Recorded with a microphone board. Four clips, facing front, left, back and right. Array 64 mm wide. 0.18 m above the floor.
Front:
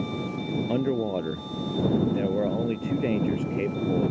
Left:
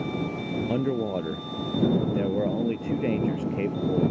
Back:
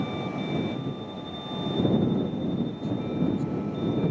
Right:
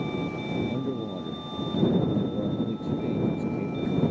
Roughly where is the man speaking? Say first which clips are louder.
Left 5 dB, front 8 dB; ahead left.